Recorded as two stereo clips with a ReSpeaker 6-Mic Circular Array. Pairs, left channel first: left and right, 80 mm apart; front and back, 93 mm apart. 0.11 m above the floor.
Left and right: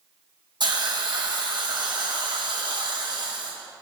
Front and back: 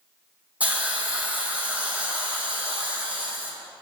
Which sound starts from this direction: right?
A hiss, at 0.6 s.